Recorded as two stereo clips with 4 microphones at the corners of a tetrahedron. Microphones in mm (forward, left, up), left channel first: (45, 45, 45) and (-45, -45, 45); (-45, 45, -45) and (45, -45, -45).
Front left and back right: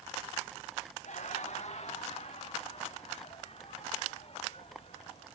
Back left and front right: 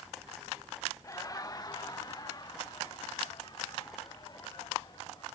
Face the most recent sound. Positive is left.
turn(degrees=80)